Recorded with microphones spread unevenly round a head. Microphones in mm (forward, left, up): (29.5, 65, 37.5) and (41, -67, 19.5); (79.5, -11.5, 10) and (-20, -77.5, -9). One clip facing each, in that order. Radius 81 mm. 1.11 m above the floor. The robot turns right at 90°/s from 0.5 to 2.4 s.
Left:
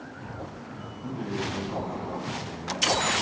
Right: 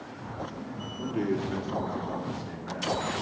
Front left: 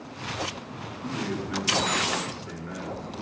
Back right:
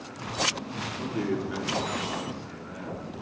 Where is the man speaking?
115° right, 3.5 m; by 3.2 s 10° left, 3.5 m.